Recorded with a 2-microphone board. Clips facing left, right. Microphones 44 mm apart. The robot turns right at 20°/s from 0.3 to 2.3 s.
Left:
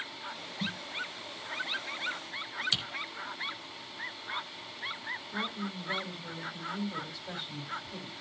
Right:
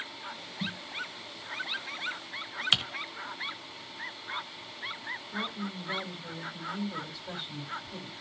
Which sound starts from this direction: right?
Typing on a keyboard, at 2.7 s.